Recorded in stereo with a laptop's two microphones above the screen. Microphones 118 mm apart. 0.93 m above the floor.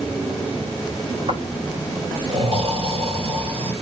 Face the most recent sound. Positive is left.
turn(degrees=-60)  # may be behind; listen again after turning